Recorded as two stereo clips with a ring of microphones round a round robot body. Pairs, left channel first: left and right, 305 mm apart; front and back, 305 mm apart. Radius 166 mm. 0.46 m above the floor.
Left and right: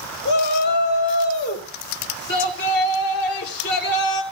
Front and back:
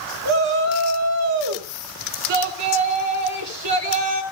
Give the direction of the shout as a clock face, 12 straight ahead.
7 o'clock.